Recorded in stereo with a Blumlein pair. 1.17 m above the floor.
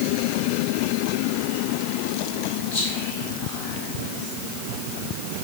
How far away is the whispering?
About 3.5 m.